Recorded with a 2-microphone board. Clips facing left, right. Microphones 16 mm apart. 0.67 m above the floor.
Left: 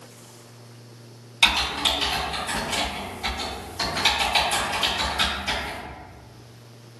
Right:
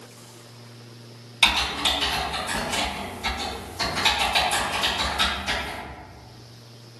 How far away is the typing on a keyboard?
About 1.4 m.